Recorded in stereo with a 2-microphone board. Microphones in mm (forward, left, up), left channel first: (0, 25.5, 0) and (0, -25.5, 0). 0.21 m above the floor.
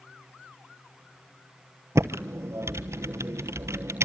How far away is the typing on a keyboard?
About 0.9 m.